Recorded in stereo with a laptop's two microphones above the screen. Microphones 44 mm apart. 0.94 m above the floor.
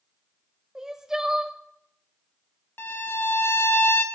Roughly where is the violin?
Left.